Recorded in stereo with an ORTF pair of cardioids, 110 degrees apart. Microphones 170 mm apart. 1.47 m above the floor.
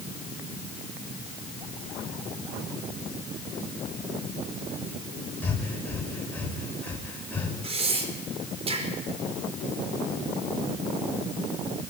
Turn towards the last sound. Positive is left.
turn(degrees=-35)